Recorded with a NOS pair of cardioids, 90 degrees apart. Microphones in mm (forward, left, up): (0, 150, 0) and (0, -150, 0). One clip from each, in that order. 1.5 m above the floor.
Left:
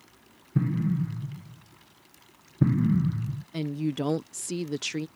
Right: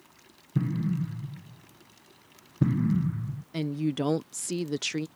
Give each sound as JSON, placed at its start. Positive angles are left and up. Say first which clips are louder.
{"t": 0.6, "sound": "an explosion", "louder": "left 2 dB", "azimuth_deg": 5}
{"t": 3.5, "sound": "a woman speaking", "louder": "right 1 dB", "azimuth_deg": -5}